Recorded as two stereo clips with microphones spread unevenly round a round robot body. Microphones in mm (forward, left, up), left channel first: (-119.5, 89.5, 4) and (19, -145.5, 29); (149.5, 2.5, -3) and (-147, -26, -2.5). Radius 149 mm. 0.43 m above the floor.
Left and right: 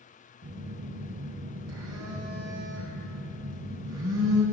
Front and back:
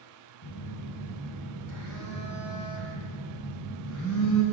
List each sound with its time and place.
0.4 s a phone buzzing: 20° right, 3 m